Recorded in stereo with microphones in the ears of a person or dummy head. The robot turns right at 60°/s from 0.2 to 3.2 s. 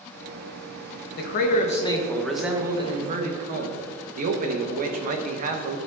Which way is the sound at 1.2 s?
105° left.